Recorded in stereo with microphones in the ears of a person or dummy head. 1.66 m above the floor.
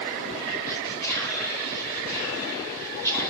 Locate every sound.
0.7 s whispering: 15° left (ahead or behind), 1.0 m